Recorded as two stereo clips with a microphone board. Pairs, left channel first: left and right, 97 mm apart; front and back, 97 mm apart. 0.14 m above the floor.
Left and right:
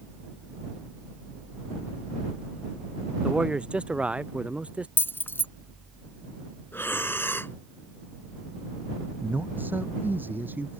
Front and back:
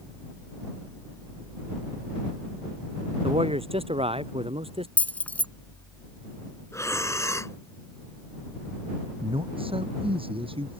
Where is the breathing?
35° left.